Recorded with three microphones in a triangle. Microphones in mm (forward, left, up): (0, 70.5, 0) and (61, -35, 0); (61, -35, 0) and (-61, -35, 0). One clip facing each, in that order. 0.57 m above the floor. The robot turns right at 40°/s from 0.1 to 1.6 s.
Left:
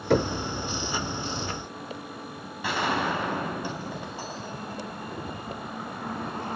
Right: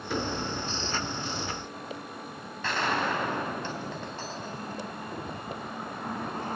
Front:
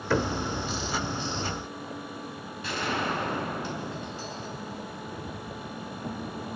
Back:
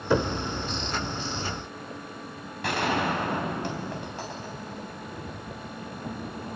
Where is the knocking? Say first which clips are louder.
Left 8 dB, back 2 dB; 110° left, 1.4 m; by 0.3 s 120° left, 1.4 m.